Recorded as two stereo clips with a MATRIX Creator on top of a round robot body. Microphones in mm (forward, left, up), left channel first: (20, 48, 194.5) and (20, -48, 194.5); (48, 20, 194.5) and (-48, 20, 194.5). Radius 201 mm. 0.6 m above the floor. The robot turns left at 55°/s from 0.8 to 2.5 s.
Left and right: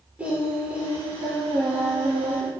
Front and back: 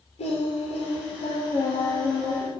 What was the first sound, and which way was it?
Singing, 10° right.